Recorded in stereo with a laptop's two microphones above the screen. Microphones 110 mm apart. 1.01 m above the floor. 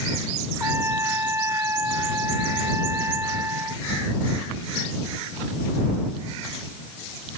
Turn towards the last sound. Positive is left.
turn(degrees=-20)  # may be behind; listen again after turning